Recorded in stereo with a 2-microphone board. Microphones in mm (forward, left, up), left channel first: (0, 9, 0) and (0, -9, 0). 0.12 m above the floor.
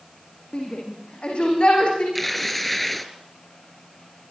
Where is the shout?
65° left (ahead or behind), 8 m; by 2.0 s 60° left (ahead or behind), 9 m.